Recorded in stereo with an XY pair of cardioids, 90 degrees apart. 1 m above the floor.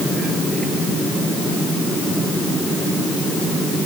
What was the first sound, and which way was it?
Only background noise.